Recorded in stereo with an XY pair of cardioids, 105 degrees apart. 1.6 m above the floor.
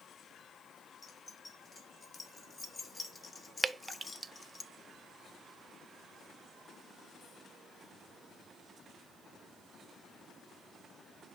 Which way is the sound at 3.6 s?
20° right.